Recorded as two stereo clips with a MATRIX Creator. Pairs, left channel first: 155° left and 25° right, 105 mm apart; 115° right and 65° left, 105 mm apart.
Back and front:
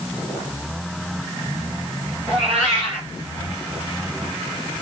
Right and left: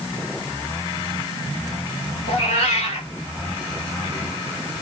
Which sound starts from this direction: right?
A cat meowing, at 2.3 s.